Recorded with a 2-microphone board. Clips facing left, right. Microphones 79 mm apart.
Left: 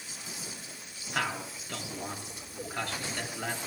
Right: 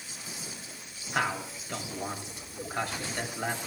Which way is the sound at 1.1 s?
10° right (ahead or behind).